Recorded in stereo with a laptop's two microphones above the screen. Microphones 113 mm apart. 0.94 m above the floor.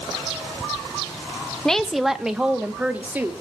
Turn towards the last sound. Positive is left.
turn(degrees=-15)  # may be behind; listen again after turning